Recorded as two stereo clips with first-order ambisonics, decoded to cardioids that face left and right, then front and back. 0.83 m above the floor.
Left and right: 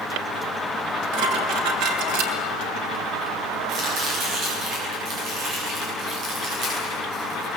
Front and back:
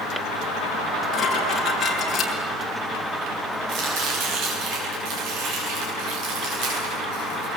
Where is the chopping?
140° right, 9 m.